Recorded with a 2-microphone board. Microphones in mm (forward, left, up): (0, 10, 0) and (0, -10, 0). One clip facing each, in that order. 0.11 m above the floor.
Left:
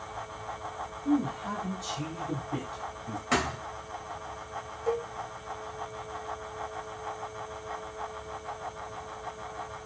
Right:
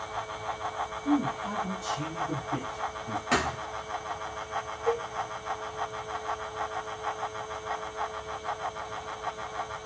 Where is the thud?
20° right (ahead or behind), 2 m.